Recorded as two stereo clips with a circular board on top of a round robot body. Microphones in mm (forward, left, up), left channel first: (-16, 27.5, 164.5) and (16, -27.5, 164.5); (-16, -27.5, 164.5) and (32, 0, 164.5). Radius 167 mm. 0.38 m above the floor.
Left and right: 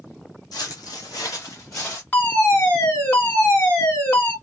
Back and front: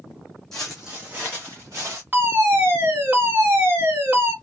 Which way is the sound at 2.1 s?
70° left.